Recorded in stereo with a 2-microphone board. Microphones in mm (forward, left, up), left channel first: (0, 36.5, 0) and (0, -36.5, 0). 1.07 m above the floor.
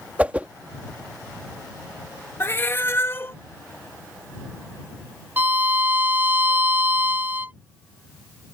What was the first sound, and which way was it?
A whoosh, 20° right (ahead or behind).